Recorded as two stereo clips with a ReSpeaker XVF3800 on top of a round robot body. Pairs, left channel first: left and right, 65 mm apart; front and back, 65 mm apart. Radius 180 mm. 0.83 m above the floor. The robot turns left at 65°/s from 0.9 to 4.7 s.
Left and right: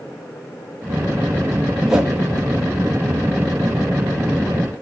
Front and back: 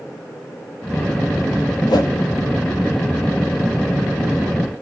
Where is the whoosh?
5° right, 1.3 m; by 2.1 s 20° right, 1.3 m.